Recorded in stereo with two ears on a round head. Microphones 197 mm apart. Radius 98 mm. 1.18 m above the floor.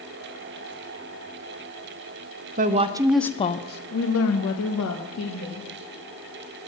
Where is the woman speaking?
35° right (ahead or behind), 0.7 m; by 5.7 s 85° left, 1.8 m.